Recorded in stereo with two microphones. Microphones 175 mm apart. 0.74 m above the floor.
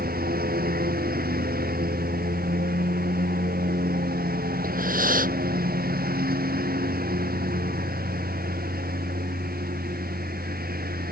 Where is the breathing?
55° right (ahead or behind).